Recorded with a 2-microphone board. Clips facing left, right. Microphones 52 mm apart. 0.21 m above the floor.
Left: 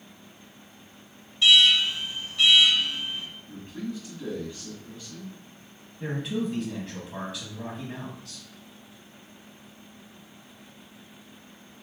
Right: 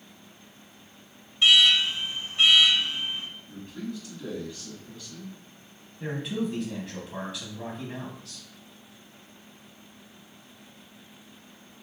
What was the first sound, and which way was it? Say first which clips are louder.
An alarm: even; 35° right (ahead or behind).